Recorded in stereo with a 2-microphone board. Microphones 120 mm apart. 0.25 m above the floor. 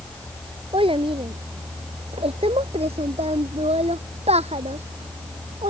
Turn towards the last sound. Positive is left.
turn(degrees=-75)  # may be behind; listen again after turning